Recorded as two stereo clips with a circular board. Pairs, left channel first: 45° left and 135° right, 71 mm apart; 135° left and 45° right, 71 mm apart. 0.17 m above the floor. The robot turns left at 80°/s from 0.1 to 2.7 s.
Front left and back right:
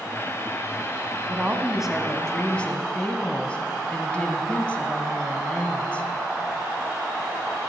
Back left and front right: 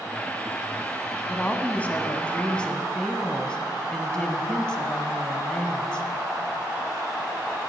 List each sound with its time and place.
1.3 s a woman speaking: 165° right, 1.0 m; by 6.1 s 80° left, 1.0 m